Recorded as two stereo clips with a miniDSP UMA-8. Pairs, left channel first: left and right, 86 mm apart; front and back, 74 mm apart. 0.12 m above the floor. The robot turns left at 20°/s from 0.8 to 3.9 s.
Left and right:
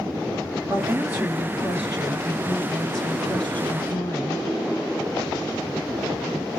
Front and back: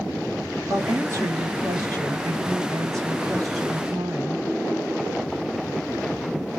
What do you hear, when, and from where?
0.7 s a woman speaking: 145° right, 2 m; by 4.4 s 150° left, 2 m